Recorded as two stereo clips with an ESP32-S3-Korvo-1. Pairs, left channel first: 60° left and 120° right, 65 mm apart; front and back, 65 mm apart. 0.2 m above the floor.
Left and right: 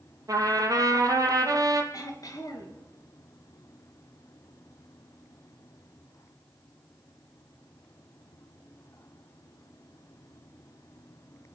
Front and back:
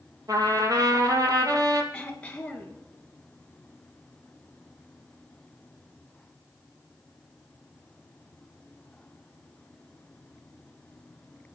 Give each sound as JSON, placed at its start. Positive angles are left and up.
{"t": 0.3, "sound": "a trumpet", "azimuth_deg": -150, "distance_m": 2.5}
{"t": 1.9, "sound": "throat clearing", "azimuth_deg": 75, "distance_m": 3.0}